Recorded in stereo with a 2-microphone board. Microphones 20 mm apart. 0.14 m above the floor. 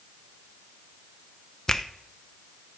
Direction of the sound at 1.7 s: 20° left (ahead or behind).